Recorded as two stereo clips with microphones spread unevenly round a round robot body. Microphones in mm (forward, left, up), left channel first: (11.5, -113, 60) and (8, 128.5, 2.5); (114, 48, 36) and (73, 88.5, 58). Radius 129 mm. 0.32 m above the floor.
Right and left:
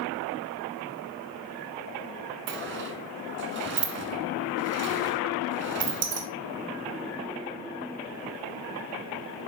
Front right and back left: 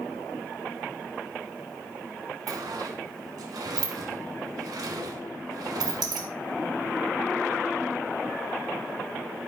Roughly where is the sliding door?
Behind left.